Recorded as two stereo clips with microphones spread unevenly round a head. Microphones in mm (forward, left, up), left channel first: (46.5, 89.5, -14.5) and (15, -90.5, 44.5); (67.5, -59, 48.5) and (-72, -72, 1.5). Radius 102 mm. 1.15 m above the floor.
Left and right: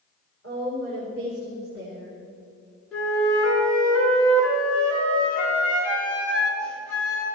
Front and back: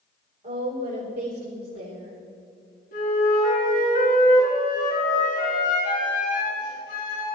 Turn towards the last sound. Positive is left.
turn(degrees=-10)